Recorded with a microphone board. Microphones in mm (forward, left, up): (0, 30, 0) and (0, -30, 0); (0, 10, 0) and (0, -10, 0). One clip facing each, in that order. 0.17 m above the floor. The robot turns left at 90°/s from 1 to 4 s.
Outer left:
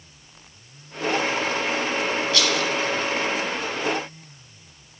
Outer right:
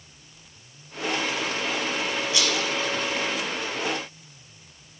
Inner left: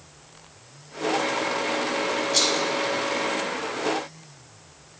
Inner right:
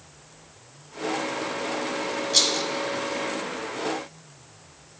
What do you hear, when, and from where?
2.3 s a rattle: 15° right (ahead or behind), 1.3 m; by 2.7 s 20° right (ahead or behind), 1.3 m